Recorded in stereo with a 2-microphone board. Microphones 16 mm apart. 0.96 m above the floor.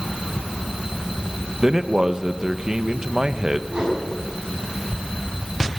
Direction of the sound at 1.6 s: 40° right (ahead or behind).